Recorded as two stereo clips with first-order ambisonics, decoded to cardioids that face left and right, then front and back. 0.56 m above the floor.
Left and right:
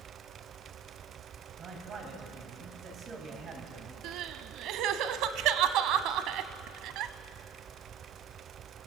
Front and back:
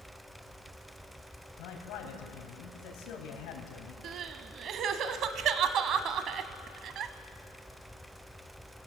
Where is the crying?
130° right, 1.0 m.